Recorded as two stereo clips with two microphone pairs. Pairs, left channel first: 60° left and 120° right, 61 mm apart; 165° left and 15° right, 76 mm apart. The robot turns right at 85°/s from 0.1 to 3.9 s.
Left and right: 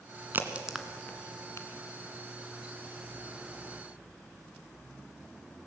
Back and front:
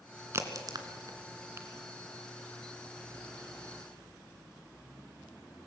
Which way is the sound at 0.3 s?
70° right.